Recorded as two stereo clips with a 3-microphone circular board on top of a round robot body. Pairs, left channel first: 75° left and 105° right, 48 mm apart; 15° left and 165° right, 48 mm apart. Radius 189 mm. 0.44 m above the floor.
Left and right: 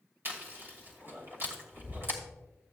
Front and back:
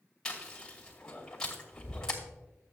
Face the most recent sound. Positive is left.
turn(degrees=-60)